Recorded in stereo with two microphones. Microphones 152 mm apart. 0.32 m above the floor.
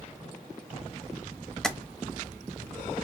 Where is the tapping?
5° left (ahead or behind), 0.6 m.